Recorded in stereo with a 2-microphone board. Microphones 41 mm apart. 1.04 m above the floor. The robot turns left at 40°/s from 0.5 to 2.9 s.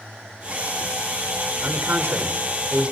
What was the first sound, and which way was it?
A man speaking, 105° right.